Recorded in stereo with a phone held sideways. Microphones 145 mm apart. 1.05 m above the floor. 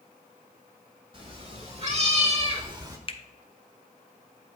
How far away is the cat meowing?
About 1.6 m.